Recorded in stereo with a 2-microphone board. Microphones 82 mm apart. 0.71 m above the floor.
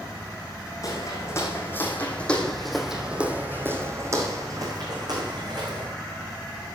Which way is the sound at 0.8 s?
40° left (ahead or behind).